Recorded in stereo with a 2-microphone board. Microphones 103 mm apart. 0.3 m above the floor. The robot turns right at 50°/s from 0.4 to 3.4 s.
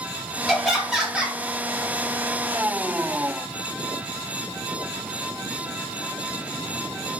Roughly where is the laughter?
Centre.